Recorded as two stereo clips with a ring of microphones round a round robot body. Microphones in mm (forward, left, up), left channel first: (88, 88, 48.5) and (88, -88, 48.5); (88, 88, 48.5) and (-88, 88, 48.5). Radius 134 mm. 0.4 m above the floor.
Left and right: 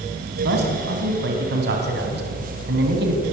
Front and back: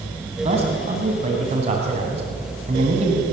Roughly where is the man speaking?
Behind right.